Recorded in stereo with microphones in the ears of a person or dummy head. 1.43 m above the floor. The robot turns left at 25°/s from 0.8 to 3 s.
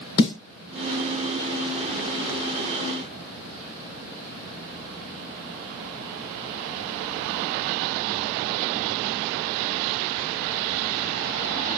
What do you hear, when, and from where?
0.2 s a snare drum: 25° left (ahead or behind), 2.5 m